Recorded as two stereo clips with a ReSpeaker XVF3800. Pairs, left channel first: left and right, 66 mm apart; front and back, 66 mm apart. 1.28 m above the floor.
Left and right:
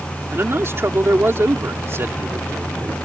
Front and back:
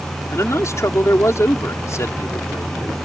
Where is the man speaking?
40° right.